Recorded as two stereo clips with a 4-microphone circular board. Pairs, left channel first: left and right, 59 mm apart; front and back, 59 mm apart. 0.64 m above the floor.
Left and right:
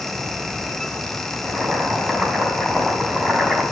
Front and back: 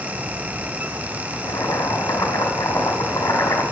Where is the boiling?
10° right, 5 m.